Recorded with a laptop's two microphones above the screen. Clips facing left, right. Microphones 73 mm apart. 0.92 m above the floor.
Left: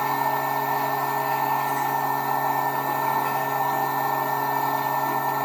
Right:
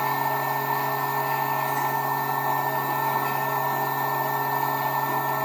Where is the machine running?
55° left (ahead or behind), 0.9 m.